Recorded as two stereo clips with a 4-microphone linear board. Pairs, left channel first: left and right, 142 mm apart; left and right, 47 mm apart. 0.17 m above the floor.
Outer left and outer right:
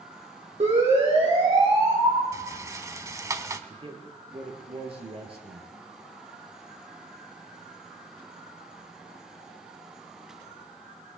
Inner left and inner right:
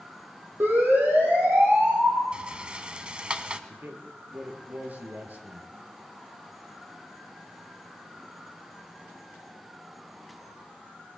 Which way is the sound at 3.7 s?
40° right (ahead or behind).